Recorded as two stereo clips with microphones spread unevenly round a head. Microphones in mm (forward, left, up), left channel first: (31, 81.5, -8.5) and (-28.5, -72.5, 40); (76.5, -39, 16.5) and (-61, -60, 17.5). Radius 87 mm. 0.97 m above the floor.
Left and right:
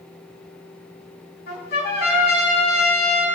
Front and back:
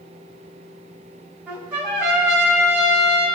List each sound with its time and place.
1.5 s a trumpet: 105° left, 3.5 m